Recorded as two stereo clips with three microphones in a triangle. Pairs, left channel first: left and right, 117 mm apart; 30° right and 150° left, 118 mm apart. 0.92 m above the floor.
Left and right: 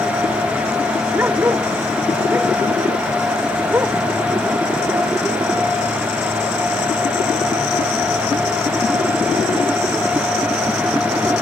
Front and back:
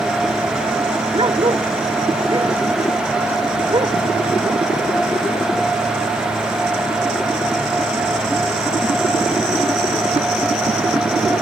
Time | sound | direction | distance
1.1 | a dog barking | 160° right | ?